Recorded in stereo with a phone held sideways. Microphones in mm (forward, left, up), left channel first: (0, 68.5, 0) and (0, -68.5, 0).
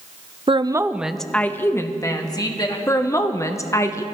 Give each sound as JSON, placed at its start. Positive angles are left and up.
{"t": 0.5, "sound": "a woman speaking", "side_deg": -40, "distance_m": 0.5}
{"t": 2.9, "sound": "a woman speaking", "side_deg": 20, "distance_m": 0.9}